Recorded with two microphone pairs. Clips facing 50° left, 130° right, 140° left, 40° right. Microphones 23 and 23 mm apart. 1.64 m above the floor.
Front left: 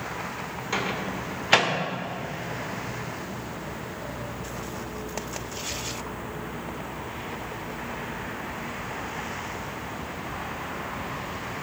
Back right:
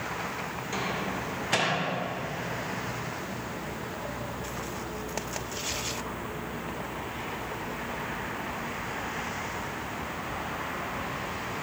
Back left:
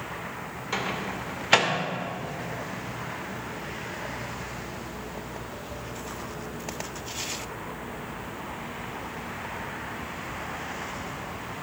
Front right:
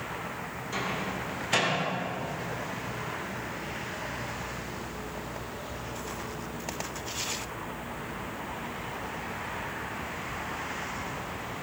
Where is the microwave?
95° left, 1.9 m.